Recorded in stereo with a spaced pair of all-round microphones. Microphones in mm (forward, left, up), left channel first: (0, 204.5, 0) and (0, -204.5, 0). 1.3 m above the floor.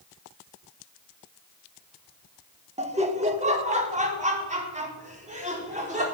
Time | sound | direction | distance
2.8 | laughter | 15° right (ahead or behind) | 1.5 m